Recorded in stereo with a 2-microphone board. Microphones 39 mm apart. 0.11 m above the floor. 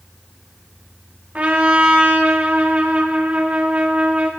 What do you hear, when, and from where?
1.4 s a trumpet: 35° right (ahead or behind), 2 m